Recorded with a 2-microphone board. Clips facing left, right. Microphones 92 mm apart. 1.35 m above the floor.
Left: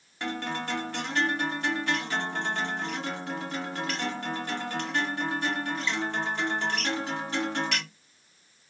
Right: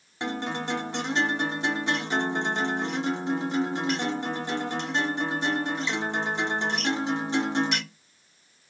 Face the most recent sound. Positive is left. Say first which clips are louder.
# right 2 dB
turn(degrees=-20)  # may be behind; listen again after turning